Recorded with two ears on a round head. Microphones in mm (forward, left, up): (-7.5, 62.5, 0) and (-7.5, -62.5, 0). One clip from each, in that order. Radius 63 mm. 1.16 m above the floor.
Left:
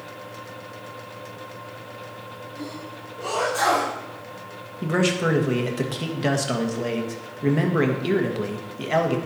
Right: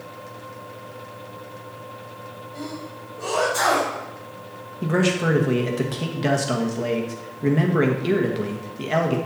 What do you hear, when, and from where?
2.5 s a sneeze: 25° right (ahead or behind), 4 m
4.8 s a man speaking: 15° left (ahead or behind), 1.3 m